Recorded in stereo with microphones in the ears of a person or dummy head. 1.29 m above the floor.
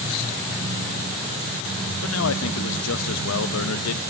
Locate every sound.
2.0 s a man speaking: 80° left, 1.2 m